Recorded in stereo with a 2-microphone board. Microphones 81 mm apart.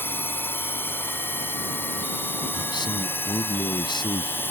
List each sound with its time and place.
0.0 s a drone: 25° left (ahead or behind)
2.5 s a man speaking: 65° left (ahead or behind)